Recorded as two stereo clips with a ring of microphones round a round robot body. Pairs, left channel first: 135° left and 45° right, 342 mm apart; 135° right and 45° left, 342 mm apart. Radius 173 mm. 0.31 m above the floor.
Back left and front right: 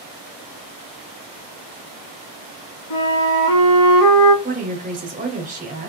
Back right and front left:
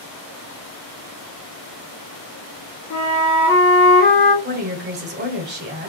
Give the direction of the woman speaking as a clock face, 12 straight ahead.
12 o'clock.